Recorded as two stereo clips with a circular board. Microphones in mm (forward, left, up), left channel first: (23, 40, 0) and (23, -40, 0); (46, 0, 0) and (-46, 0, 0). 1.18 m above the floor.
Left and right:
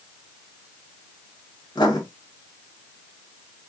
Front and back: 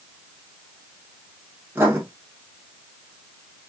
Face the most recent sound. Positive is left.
turn(degrees=115)